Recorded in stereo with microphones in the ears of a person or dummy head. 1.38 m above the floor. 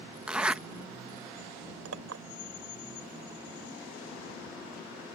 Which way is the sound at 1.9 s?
85° right.